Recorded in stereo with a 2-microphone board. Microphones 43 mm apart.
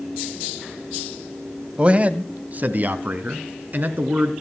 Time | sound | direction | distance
1.8 | a man speaking | 30° right (ahead or behind) | 1.1 m